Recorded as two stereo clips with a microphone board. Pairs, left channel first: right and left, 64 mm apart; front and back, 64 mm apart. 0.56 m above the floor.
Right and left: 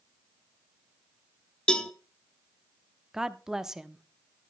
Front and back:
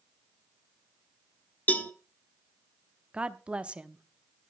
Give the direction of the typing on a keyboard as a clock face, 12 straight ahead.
I don't hear typing on a keyboard.